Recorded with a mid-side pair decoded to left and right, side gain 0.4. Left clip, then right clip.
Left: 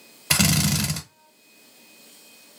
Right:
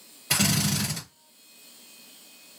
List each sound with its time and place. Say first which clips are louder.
0.3 s a drill: left 3 dB; 55° left, 1.1 m